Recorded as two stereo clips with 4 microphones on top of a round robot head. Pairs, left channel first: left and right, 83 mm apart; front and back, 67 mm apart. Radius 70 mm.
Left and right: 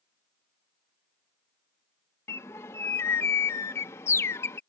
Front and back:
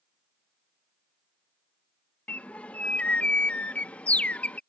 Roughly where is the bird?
Ahead left.